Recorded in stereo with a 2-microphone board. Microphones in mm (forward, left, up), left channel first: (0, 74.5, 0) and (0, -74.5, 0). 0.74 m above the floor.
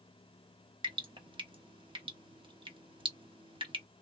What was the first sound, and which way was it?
Dripping, 35° right (ahead or behind).